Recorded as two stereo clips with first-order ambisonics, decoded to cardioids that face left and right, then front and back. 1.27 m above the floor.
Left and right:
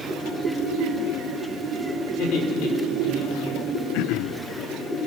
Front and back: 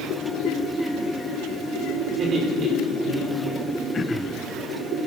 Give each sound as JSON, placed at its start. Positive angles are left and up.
{"t": 2.1, "sound": "laughter", "azimuth_deg": 115, "distance_m": 5.0}
{"t": 3.9, "sound": "throat clearing", "azimuth_deg": 70, "distance_m": 0.7}